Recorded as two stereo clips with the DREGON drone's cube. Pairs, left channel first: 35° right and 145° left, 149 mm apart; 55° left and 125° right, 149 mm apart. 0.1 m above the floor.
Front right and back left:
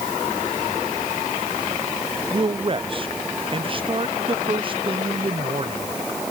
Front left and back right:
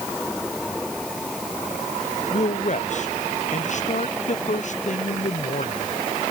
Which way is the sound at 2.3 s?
90° left.